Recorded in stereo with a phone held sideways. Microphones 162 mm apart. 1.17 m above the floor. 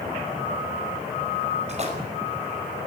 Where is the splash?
40° right (ahead or behind), 5.5 m.